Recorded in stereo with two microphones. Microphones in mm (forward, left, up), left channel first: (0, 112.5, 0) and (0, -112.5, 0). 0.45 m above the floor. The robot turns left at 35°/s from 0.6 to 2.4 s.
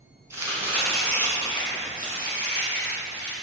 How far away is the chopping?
About 2.5 m.